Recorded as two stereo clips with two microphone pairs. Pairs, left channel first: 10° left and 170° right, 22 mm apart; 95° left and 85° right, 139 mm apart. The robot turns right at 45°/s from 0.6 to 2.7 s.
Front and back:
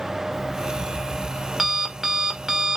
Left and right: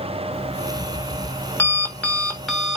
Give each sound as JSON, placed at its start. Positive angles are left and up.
{"t": 0.3, "sound": "an alarm clock", "azimuth_deg": 95, "distance_m": 1.1}